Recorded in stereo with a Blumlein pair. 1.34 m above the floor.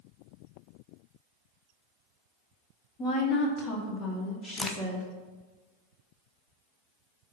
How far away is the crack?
About 0.8 m.